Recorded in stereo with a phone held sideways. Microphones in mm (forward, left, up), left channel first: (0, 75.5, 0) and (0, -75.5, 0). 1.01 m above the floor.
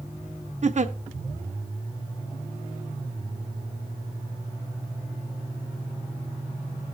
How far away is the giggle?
About 0.7 m.